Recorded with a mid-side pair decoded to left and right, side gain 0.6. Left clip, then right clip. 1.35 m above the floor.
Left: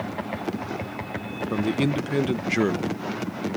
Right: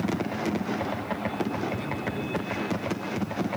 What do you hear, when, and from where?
1.5 s a man speaking: 65° left